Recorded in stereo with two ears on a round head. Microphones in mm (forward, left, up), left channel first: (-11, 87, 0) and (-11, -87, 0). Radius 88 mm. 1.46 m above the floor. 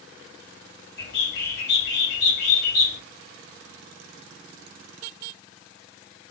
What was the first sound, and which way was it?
A bird, 55° left (ahead or behind).